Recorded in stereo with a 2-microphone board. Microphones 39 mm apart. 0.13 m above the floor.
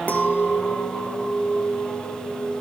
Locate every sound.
0.1 s a clink: 35° left (ahead or behind), 1.5 m